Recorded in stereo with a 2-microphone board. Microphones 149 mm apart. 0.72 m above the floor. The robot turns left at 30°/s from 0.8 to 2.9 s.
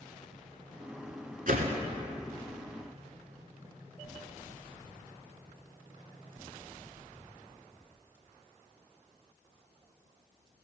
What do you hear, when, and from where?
1.5 s a whoosh: 70° right (ahead or behind), 1.5 m; by 1.8 s 60° right (ahead or behind), 1.5 m